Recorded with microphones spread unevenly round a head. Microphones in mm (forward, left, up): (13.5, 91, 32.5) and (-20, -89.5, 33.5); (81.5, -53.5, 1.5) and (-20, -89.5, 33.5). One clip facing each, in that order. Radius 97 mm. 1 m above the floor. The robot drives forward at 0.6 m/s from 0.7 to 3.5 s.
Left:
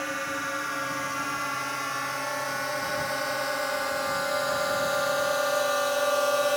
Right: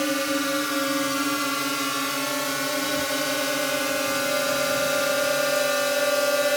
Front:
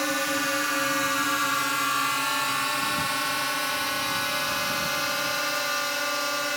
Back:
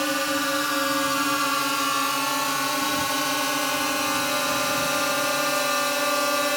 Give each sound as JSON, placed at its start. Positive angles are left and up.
{"t": 0.0, "sound": "a drone", "azimuth_deg": -85}